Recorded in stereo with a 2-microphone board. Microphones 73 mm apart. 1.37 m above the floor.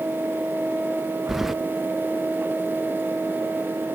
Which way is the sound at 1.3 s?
Centre (ahead or behind).